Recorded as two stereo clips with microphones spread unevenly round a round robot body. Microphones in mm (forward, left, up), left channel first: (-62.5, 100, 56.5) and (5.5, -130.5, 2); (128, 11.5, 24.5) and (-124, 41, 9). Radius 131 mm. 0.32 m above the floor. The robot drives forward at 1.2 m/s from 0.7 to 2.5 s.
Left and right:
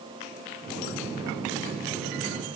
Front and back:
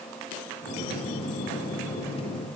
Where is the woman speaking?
No woman speaking in this recording.